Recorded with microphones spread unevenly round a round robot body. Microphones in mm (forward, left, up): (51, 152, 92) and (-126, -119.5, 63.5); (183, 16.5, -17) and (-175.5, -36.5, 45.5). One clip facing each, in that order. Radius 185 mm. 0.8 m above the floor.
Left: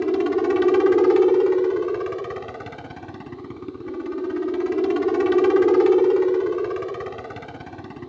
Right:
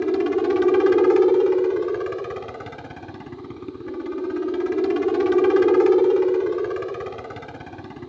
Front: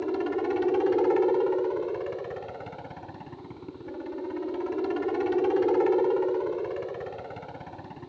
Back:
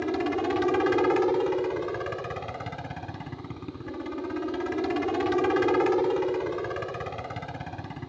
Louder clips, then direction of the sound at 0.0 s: Even, even; 145° left.